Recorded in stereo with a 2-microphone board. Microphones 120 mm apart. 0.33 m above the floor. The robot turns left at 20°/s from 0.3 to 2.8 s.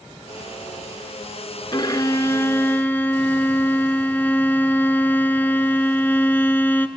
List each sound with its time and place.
1.7 s a violin: 40° left (ahead or behind), 0.8 m; by 6.9 s 15° left (ahead or behind), 0.8 m